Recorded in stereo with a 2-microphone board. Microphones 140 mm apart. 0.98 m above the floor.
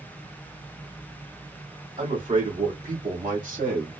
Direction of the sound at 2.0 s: 60° right (ahead or behind).